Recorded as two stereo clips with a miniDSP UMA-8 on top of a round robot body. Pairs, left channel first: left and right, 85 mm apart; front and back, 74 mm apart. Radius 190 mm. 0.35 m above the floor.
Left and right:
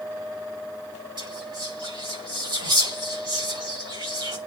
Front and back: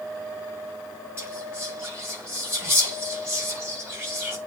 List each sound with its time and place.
1.2 s whispering: 125° right, 5.5 m